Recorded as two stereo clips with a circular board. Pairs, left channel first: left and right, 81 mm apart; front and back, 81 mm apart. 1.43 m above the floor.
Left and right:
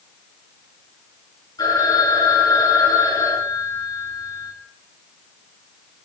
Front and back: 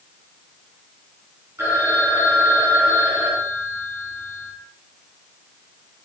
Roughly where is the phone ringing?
Behind left.